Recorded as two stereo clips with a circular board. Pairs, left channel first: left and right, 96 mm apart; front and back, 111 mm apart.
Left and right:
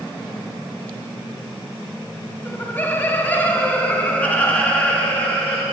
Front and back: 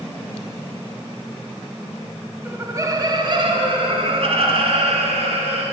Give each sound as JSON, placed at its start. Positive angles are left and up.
{"t": 2.5, "sound": "laughter", "azimuth_deg": 130, "distance_m": 1.0}